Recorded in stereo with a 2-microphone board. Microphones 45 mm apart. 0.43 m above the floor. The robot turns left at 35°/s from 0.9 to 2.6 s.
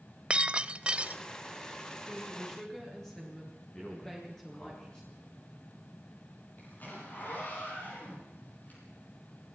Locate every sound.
0.3 s breaking glass: 25° right (ahead or behind), 0.6 m; by 1.2 s 35° right (ahead or behind), 0.6 m
2.1 s a woman speaking: 5° right (ahead or behind), 8.5 m; by 4.8 s 15° left (ahead or behind), 8.5 m
3.8 s a man speaking: 25° left (ahead or behind), 4.5 m
6.6 s a zipper: 45° left (ahead or behind), 9.5 m